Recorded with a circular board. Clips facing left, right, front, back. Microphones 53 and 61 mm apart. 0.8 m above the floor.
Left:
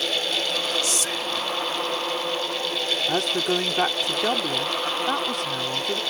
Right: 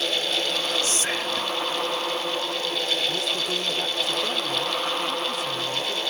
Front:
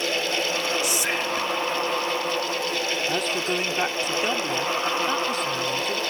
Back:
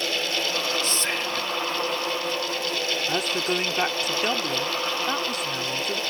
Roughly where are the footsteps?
No footsteps in this recording.